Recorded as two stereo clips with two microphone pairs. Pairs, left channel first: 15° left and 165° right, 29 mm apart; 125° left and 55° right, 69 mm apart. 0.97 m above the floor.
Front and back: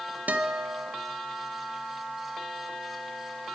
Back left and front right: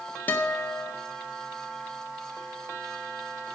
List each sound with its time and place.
0.3 s a guitar: 170° right, 0.8 m